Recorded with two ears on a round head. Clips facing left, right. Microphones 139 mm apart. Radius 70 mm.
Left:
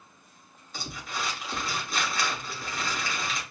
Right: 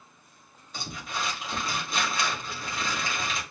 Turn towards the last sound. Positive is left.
turn(degrees=0)  # may be behind; listen again after turning